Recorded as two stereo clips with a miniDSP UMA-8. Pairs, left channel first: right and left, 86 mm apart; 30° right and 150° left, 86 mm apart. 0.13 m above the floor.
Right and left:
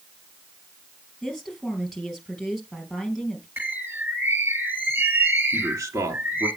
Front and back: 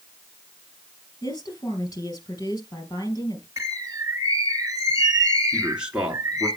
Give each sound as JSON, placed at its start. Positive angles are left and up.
{"t": 1.2, "sound": "a woman speaking", "azimuth_deg": 5, "distance_m": 3.0}
{"t": 3.6, "sound": "a bird", "azimuth_deg": 130, "distance_m": 1.6}
{"t": 5.5, "sound": "a man speaking", "azimuth_deg": 80, "distance_m": 2.0}